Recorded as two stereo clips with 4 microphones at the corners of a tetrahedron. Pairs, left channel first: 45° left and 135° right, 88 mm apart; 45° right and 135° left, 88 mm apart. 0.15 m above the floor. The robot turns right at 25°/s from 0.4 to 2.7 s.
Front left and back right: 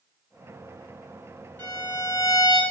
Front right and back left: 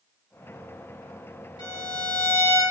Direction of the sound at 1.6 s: 20° right.